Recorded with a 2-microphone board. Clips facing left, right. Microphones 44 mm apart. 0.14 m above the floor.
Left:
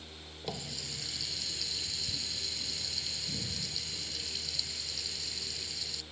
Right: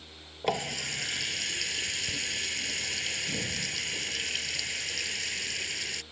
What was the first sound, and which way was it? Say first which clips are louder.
A running tap: right 11 dB; 60° right (ahead or behind).